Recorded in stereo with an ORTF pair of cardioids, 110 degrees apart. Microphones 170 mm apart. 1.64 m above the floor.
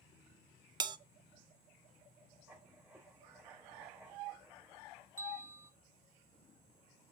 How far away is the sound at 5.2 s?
About 1.1 m.